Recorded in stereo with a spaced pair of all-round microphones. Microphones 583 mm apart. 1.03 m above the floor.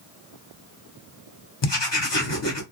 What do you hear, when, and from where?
1.6 s writing: 50° left (ahead or behind), 1.1 m